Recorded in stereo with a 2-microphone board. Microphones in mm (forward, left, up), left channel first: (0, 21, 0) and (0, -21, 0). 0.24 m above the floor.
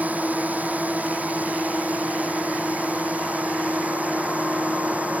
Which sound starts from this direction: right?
A drone, at 0.0 s.